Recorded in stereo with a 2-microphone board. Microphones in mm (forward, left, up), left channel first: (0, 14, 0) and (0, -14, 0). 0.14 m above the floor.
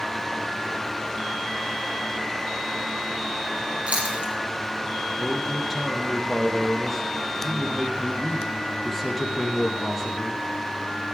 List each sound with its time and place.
3.9 s chewing: 55° right (ahead or behind), 3.5 m
5.2 s a man speaking: centre (ahead or behind), 4 m